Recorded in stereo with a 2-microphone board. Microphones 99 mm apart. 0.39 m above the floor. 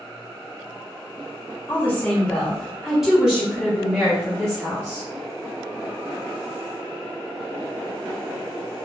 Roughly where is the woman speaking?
Left.